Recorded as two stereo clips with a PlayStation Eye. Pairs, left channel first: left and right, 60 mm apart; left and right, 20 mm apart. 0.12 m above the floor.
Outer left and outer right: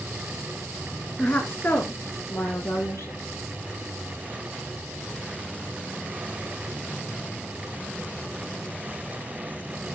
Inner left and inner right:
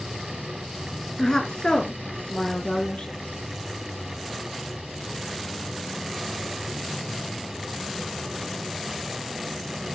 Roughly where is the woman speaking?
Left.